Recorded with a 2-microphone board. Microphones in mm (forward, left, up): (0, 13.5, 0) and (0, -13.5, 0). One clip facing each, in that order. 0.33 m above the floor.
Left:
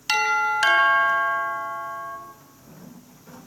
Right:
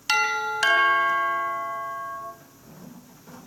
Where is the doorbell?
Centre (ahead or behind), 5.5 m.